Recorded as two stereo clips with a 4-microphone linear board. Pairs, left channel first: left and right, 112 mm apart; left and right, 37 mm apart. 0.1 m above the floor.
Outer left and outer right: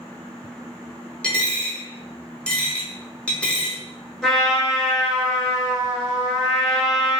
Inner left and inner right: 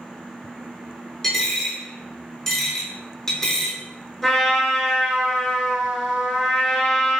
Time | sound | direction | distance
1.2 | a dropped coin | 10° left (ahead or behind) | 0.8 m
4.2 | a trumpet | 5° left (ahead or behind) | 1.1 m